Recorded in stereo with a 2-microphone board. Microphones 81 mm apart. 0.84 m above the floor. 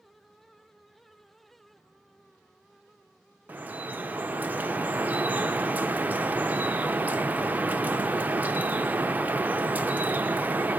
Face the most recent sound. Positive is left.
turn(degrees=-25)  # may be behind; listen again after turning